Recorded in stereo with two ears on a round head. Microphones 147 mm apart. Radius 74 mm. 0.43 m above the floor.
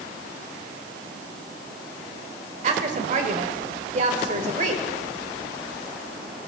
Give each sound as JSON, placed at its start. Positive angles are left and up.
{"t": 2.6, "sound": "a woman speaking", "side_deg": -45, "distance_m": 1.6}